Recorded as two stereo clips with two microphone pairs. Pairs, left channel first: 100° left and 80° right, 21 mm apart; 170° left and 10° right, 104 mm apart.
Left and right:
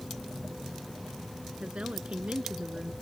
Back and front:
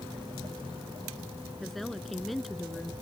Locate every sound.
1.6 s a woman speaking: 100° right